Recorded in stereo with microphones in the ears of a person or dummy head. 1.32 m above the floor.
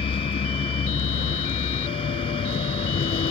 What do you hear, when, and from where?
0.0 s a vehicle: 30° left (ahead or behind)